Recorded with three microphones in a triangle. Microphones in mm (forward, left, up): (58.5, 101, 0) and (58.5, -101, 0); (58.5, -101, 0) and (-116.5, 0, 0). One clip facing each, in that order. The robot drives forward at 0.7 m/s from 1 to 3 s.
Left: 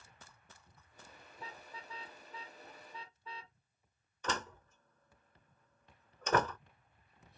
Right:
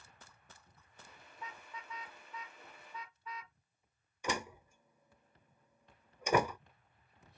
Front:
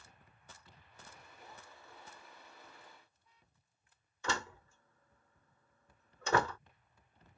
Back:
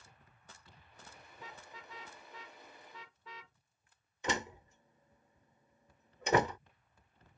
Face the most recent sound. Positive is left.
turn(degrees=-155)